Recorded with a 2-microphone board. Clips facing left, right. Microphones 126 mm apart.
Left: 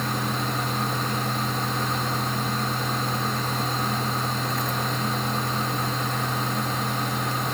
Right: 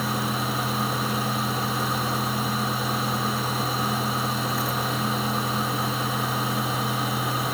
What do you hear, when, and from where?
Only background noise.